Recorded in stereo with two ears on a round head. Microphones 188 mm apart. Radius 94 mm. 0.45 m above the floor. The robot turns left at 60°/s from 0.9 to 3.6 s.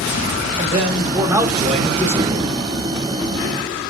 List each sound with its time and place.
0.6 s a man speaking: 130° right, 1.2 m; by 2.5 s 130° left, 1.2 m